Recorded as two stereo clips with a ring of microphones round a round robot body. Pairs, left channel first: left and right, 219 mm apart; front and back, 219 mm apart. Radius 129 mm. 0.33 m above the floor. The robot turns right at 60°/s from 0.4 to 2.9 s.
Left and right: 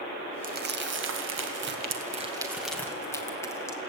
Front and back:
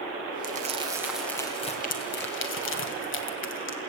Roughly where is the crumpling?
Behind right.